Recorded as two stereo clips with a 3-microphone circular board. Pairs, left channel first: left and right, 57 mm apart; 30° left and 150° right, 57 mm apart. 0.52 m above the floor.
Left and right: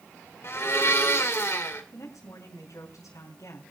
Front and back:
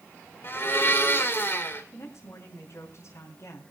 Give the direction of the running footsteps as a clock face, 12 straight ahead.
I don't hear running footsteps.